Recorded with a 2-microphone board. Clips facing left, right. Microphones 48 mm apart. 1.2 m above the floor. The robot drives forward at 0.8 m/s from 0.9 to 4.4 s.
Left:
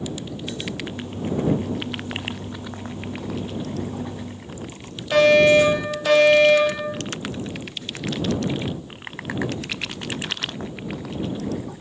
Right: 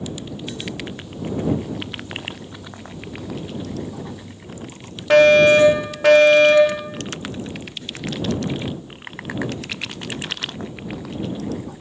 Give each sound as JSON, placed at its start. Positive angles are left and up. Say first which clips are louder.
{"t": 5.1, "sound": "a fire alarm", "louder": "right 3 dB", "side_deg": -75, "distance_m": 5.0}